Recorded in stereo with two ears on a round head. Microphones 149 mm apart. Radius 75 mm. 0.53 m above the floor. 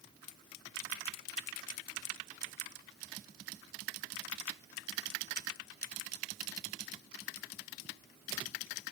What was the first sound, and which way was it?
Only background noise.